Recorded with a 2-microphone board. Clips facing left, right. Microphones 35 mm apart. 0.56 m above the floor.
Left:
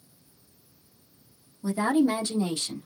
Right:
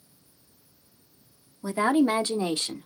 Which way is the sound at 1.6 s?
30° right (ahead or behind).